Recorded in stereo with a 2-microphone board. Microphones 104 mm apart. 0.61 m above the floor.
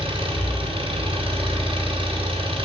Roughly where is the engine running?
Right.